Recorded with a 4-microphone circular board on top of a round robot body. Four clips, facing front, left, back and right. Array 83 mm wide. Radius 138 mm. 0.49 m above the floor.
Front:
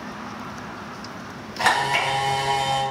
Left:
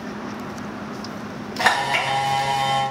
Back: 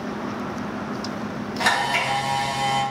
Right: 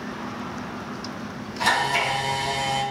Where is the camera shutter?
75° left, 2 m.